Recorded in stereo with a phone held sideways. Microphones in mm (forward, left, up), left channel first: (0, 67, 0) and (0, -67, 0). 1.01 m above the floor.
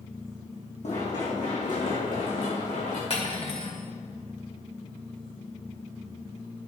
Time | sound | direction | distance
0.8 | running footsteps | 55° left (ahead or behind) | 3.5 m
3.1 | cutlery clinking | 45° left (ahead or behind) | 1.7 m